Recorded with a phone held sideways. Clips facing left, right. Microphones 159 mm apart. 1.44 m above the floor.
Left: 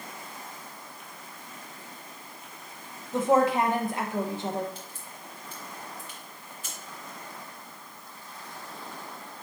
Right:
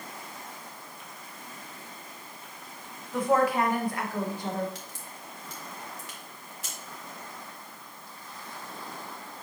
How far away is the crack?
About 2.5 m.